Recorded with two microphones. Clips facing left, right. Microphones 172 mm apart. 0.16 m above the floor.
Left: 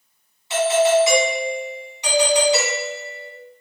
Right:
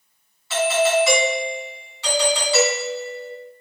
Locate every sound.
0.5 s a doorbell: 20° left (ahead or behind), 1.9 m